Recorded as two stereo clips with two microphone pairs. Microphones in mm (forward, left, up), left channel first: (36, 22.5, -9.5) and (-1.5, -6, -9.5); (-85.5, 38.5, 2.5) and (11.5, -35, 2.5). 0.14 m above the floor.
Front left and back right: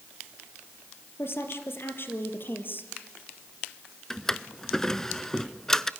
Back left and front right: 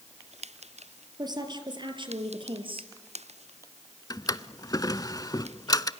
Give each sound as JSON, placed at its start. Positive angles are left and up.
{"t": 1.2, "sound": "a woman speaking", "azimuth_deg": 15, "distance_m": 3.5}
{"t": 4.1, "sound": "a drawer", "azimuth_deg": 110, "distance_m": 0.6}